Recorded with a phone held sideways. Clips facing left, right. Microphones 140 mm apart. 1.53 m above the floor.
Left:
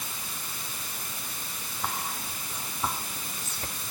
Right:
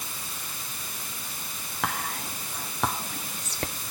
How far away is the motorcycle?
No motorcycle in this recording.